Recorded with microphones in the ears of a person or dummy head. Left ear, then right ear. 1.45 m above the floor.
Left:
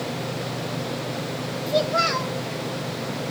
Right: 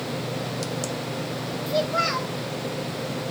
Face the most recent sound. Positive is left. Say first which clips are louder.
# left 2 dB
turn(degrees=5)  # may be behind; listen again after turning